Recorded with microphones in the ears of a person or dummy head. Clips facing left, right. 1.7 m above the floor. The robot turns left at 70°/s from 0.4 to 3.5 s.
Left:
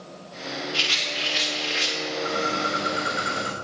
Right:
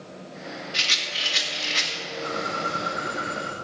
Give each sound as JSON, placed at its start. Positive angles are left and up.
{"t": 0.7, "sound": "a rattle", "azimuth_deg": -30, "distance_m": 2.0}
{"t": 2.2, "sound": "a bird", "azimuth_deg": -175, "distance_m": 2.0}